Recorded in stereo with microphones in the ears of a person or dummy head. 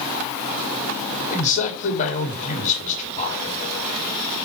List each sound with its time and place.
1.3 s a man speaking: 35° left (ahead or behind), 2.5 m